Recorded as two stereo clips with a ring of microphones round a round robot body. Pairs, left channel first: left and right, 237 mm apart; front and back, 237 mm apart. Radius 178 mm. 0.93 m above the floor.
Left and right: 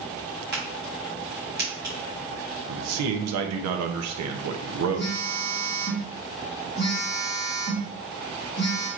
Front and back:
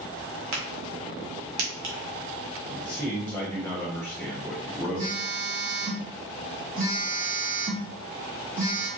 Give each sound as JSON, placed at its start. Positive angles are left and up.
{"t": 0.5, "sound": "a crack", "azimuth_deg": -155, "distance_m": 0.8}
{"t": 2.7, "sound": "a man speaking", "azimuth_deg": -85, "distance_m": 0.6}
{"t": 5.0, "sound": "a phone buzzing", "azimuth_deg": 130, "distance_m": 1.6}